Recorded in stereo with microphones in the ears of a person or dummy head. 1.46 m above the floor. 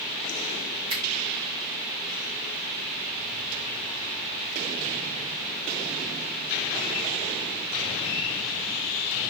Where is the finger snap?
85° right, 4 m.